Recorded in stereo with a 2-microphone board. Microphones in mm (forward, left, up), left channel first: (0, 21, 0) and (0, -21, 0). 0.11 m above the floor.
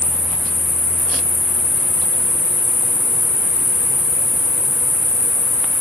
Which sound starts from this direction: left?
An insect, at 0.0 s.